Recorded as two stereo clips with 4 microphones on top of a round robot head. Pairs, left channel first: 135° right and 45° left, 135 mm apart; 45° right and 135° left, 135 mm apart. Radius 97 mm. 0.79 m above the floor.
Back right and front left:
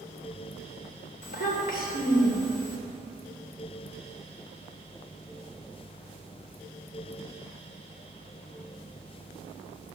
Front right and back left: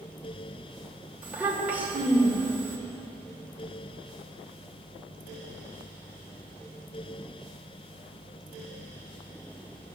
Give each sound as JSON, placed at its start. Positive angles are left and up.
{"t": 1.2, "sound": "a child speaking", "azimuth_deg": -145, "distance_m": 3.0}